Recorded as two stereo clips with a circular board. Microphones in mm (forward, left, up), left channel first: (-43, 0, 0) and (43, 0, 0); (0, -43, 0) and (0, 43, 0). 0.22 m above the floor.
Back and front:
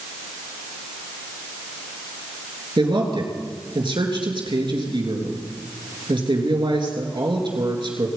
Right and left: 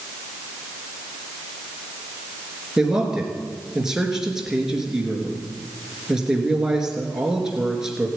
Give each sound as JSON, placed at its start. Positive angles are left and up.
{"t": 2.8, "sound": "a man speaking", "azimuth_deg": 5, "distance_m": 3.0}